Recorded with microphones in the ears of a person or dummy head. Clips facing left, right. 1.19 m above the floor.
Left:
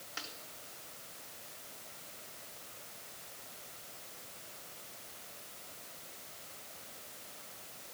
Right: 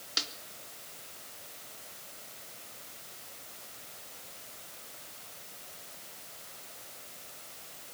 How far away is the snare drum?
About 3.5 m.